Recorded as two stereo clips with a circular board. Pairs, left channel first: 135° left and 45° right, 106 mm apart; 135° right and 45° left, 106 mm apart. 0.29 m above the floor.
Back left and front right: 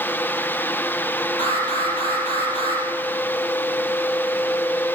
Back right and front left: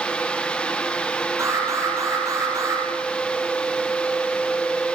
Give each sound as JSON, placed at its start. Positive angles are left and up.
{"t": 1.4, "sound": "an alarm", "azimuth_deg": 105, "distance_m": 6.5}